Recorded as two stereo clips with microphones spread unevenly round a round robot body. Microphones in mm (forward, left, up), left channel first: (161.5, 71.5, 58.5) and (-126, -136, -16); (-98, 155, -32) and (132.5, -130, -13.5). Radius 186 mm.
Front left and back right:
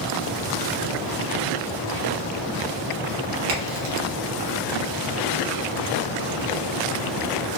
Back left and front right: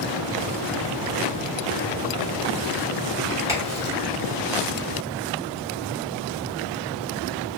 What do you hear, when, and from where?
3.5 s a crack: 130° right, 1.1 m